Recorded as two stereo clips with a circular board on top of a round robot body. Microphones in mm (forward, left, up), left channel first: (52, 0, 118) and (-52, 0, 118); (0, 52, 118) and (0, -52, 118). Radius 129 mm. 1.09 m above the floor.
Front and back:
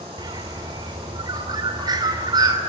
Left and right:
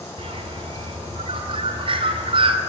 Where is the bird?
125° right, 2 m.